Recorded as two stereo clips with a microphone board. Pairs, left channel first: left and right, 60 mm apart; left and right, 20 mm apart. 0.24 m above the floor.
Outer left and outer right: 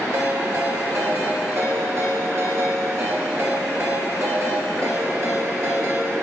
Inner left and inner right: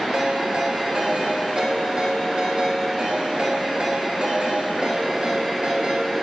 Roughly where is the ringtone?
Right.